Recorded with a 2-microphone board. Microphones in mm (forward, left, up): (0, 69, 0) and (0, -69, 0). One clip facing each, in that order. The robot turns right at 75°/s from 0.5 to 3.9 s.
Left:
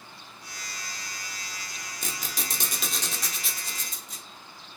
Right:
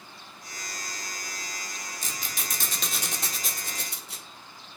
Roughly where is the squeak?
Left.